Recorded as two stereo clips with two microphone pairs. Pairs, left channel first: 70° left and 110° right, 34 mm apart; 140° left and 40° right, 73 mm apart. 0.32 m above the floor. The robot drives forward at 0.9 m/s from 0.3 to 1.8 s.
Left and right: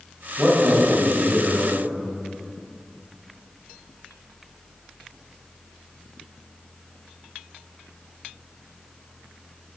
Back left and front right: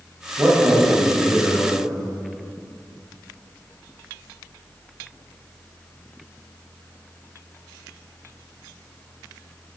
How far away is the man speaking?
About 1.7 m.